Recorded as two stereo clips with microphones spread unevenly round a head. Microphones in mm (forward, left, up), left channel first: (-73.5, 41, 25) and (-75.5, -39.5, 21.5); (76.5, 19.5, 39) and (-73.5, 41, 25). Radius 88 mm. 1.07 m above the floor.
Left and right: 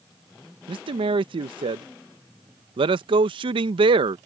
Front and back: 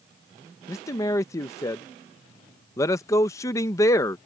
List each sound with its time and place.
0.7 s a man speaking: 80° right